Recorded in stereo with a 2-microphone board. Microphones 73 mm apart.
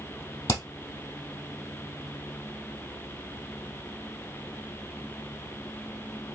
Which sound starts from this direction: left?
Hammering, at 0.5 s.